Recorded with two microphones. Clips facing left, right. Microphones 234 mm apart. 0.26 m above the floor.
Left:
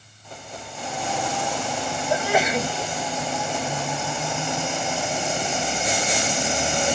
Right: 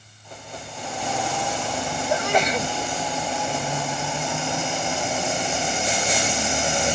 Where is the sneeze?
5° left (ahead or behind), 1.3 m.